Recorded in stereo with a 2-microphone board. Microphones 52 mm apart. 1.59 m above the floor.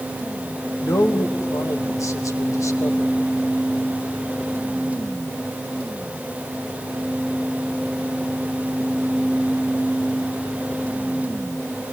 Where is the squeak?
I don't hear a squeak.